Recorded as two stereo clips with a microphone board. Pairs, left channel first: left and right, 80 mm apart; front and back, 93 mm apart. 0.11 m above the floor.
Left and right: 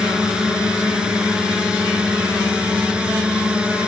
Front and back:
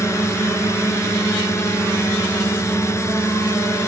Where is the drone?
15° right; by 3.9 s 20° right.